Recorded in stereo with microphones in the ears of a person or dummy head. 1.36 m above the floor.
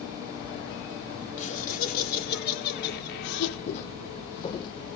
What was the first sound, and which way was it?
Laughter, 45° left (ahead or behind).